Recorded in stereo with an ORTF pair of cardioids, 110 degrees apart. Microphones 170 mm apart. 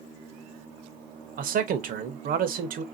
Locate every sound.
1.4 s a man speaking: 55° right, 1.1 m